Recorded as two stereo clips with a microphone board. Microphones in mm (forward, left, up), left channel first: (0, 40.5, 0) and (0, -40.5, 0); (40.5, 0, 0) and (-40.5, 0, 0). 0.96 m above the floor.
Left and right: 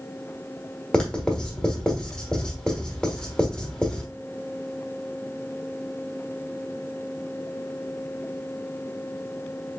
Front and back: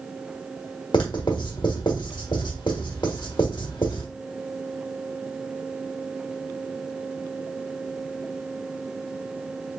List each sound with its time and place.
0.9 s writing: 10° left, 1.3 m